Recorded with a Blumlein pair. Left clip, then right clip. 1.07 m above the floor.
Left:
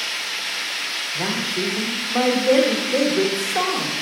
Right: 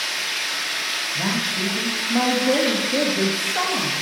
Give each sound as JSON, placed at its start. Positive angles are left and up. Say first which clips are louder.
{"t": 0.0, "sound": "running water", "louder": "right 1 dB", "azimuth_deg": -50, "distance_m": 2.0}
{"t": 1.1, "sound": "a man speaking", "louder": "even", "azimuth_deg": 5, "distance_m": 1.1}